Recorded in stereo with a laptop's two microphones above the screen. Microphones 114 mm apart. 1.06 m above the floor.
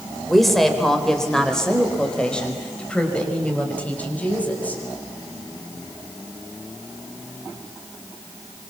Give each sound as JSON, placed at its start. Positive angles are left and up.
{"t": 0.3, "sound": "a woman speaking", "side_deg": 0, "distance_m": 4.0}